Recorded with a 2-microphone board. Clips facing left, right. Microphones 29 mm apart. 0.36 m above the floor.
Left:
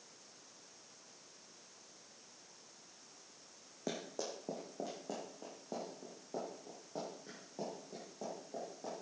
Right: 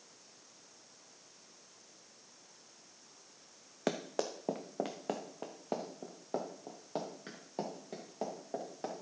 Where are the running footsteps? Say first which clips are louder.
Right 6 dB; 70° right (ahead or behind), 1.1 m; by 8.9 s 80° right, 4.5 m.